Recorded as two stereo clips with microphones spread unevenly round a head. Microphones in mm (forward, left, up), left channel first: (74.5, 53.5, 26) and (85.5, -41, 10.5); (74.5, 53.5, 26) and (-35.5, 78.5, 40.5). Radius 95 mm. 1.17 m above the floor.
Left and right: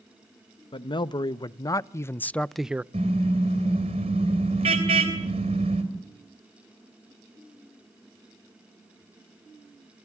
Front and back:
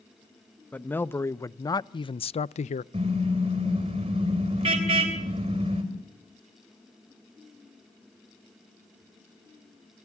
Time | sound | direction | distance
0.7 | a man speaking | 60° left | 1.1 m
2.9 | a car horn | 135° right | 3 m